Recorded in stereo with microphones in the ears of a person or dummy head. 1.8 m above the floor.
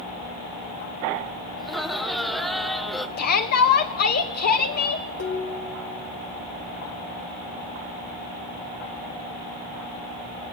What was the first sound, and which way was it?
Laughter, centre (ahead or behind).